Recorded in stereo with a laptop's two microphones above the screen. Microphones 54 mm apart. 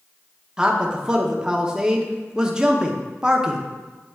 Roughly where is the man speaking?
Centre.